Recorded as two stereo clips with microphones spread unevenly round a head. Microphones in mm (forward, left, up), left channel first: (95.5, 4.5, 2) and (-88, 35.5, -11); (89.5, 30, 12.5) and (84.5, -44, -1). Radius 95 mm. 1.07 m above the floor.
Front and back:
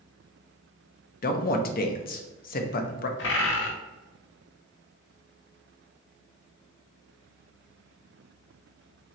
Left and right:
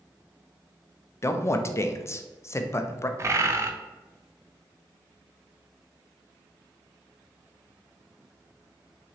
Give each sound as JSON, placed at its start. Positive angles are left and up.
{"t": 1.2, "sound": "a man speaking", "azimuth_deg": 30, "distance_m": 0.5}
{"t": 3.2, "sound": "a bird", "azimuth_deg": -40, "distance_m": 0.6}